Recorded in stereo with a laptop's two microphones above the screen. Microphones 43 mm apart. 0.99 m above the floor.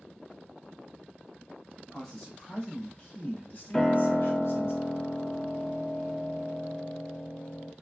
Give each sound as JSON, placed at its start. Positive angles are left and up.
{"t": 1.9, "sound": "a man speaking", "side_deg": 15, "distance_m": 1.9}
{"t": 3.7, "sound": "a piano", "side_deg": 10, "distance_m": 0.5}